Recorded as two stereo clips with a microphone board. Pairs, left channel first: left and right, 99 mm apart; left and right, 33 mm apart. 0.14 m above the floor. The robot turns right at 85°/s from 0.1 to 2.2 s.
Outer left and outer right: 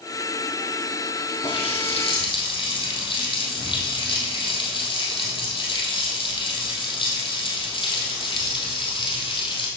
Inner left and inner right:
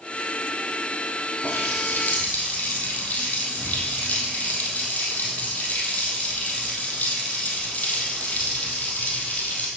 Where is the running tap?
55° left, 3 m; by 9.7 s 120° left, 3 m.